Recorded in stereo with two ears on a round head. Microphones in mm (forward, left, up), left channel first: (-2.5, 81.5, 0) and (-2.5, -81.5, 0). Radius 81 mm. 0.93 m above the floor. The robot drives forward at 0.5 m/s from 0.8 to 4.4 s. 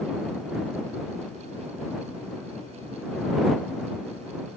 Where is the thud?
I don't hear a thud.